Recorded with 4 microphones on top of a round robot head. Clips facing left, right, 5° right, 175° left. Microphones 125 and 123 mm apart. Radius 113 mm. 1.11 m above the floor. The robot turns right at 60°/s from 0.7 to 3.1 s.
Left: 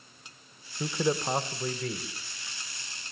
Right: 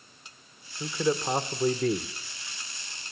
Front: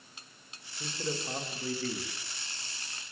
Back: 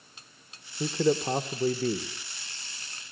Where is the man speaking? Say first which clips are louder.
Right 1 dB, back 12 dB; 155° left, 1.4 m; by 2.1 s 130° right, 1.4 m.